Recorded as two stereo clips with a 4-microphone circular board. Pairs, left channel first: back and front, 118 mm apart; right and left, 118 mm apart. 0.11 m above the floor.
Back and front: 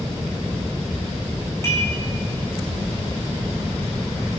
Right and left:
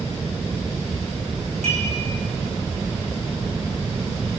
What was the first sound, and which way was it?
Dishes clattering, 115° left.